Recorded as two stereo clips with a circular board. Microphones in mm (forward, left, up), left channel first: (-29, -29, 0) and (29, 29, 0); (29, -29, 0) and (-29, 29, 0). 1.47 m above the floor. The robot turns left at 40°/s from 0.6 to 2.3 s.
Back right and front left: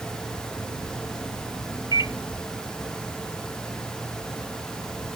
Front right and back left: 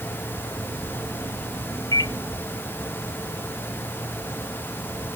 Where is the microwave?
5° left; by 2.1 s 5° right.